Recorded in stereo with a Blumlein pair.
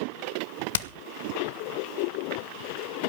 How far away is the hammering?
About 1.2 m.